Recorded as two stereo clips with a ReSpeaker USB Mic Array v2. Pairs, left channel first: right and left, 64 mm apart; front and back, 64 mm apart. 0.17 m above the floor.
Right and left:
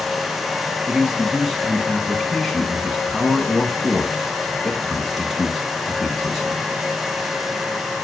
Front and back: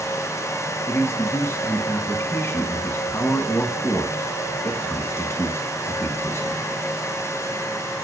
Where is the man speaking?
5° left, 1.2 m.